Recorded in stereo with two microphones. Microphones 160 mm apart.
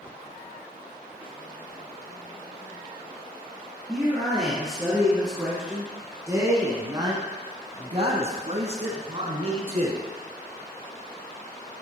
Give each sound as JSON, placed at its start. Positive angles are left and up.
{"t": 3.9, "sound": "a man speaking", "side_deg": 0, "distance_m": 3.0}